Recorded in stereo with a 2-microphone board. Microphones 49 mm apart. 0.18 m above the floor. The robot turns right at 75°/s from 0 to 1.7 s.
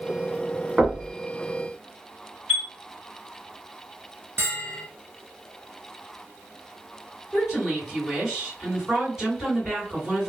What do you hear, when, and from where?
0.8 s knocking: 20° right (ahead or behind), 1.0 m; by 1.1 s 5° right (ahead or behind), 1.0 m
2.5 s a chime: 25° right (ahead or behind), 1.8 m
4.4 s a bell: 50° right (ahead or behind), 0.9 m
7.3 s a woman speaking: 15° right (ahead or behind), 2.0 m